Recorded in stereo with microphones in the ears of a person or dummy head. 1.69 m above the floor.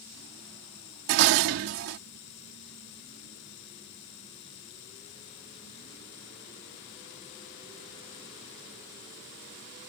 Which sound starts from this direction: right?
Dishes clattering, at 1.1 s.